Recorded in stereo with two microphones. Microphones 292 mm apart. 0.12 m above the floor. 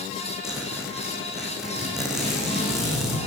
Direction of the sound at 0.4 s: Centre (ahead or behind).